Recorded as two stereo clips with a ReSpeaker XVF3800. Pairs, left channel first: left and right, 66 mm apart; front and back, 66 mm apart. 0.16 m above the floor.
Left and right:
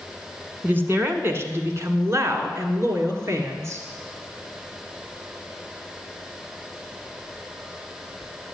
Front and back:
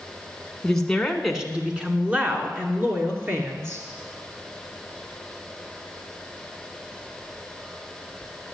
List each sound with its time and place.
0.6 s a woman speaking: 75° right, 1.7 m; by 3.8 s 135° right, 3.5 m